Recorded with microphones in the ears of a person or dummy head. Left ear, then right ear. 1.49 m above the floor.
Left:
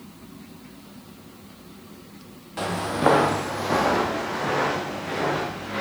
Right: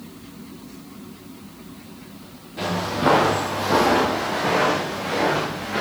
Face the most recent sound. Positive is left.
turn(degrees=-10)  # may be behind; listen again after turning